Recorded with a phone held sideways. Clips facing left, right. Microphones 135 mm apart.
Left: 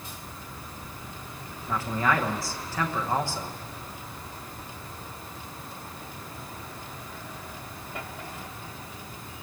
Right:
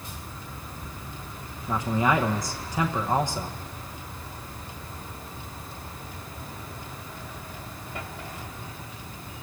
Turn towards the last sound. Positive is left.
turn(degrees=-15)  # may be behind; listen again after turning